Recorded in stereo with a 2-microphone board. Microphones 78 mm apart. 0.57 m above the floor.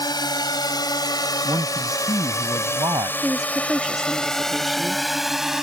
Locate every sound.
0.0 s a drone: 75° left (ahead or behind); by 5.6 s 5° right (ahead or behind)
1.4 s a man speaking: 75° right (ahead or behind)
3.2 s a woman speaking: 5° right (ahead or behind)